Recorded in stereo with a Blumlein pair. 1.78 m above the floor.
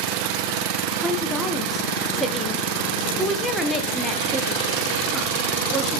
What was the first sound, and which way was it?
A woman speaking, 5° left.